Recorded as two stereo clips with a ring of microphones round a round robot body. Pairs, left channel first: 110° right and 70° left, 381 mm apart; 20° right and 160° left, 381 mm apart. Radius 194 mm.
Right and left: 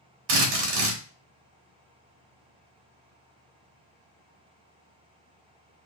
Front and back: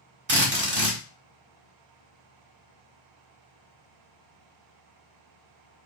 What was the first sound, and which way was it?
A drill, 95° left.